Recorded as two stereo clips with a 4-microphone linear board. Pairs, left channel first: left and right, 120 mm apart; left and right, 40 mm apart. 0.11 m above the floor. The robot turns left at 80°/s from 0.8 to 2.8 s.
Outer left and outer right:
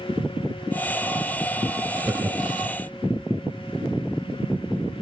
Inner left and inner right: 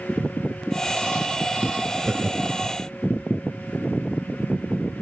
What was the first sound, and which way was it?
Laughter, 15° right (ahead or behind).